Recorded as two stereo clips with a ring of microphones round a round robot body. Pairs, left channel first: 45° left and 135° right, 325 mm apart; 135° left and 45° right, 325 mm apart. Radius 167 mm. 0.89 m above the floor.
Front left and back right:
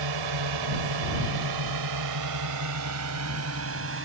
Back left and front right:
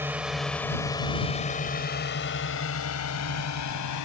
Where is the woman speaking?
I don't hear a woman speaking.